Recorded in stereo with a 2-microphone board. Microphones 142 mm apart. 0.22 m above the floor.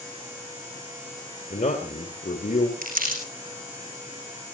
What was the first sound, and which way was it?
A man speaking, 70° left (ahead or behind).